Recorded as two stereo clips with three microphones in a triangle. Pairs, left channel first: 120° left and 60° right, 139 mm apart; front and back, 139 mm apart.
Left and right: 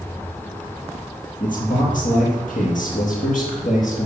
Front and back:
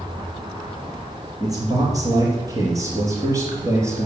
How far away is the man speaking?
About 5.5 m.